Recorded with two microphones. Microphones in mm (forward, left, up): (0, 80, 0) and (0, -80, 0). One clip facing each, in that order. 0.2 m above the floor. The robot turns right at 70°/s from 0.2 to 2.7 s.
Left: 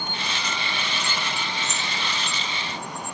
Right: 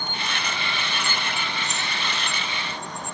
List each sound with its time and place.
1.6 s keys jangling: 75° left (ahead or behind), 9 m; by 1.9 s 55° left (ahead or behind), 9 m